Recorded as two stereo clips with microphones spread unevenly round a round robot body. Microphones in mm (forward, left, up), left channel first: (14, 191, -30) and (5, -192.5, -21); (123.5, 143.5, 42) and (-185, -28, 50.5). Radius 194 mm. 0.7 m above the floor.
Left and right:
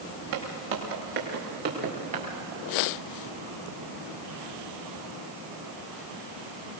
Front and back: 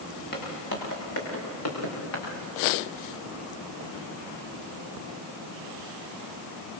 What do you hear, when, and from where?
0.3 s footsteps: 35° right, 7 m; by 2.2 s 20° right, 6.5 m